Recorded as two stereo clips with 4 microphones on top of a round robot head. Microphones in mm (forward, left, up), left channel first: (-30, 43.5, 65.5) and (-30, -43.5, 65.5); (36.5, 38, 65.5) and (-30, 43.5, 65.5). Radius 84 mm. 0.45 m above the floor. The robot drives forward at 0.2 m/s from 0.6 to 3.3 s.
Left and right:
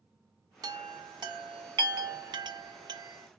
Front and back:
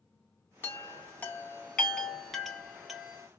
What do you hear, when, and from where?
0.6 s a chime: 55° right, 0.8 m; by 3.3 s 105° right, 0.7 m